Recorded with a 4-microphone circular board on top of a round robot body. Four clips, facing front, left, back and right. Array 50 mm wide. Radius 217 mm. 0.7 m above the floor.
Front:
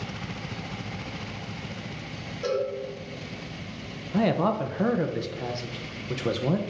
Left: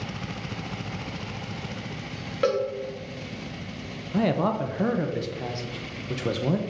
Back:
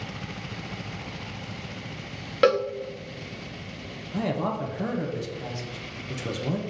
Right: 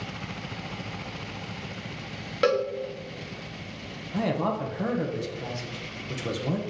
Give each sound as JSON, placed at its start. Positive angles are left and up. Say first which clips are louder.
{"t": 2.4, "sound": "a cowbell", "louder": "right 1 dB, back 7 dB", "azimuth_deg": -170, "distance_m": 0.6}
{"t": 4.1, "sound": "a man speaking", "louder": "left 3 dB, front 4 dB", "azimuth_deg": 30, "distance_m": 1.0}